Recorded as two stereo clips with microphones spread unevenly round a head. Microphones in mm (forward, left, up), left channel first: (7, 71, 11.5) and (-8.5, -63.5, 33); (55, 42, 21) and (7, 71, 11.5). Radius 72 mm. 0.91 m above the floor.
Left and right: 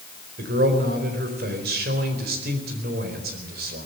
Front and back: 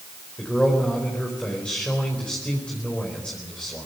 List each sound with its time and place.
0.4 s a man speaking: 115° right, 4.5 m